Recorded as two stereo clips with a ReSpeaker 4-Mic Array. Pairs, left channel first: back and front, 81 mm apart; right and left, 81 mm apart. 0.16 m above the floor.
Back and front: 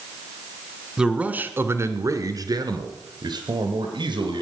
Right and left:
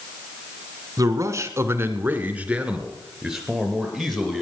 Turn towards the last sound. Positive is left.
turn(degrees=0)